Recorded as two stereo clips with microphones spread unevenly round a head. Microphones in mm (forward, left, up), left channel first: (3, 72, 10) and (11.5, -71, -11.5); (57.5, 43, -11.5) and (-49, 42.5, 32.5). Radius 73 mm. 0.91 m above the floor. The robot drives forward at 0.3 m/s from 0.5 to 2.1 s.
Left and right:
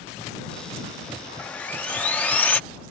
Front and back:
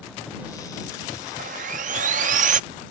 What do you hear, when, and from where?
1.4 s sawing: 175° left